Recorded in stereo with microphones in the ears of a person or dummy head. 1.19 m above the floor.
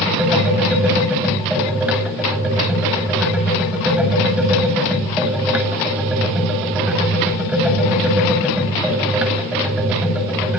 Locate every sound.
0.0 s a machine running: 5° right (ahead or behind), 8 m